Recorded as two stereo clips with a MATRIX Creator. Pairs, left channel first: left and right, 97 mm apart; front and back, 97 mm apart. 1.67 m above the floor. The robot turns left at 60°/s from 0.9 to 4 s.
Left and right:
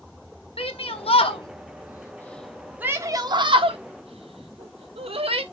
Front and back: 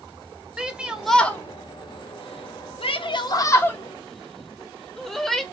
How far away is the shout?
About 0.9 m.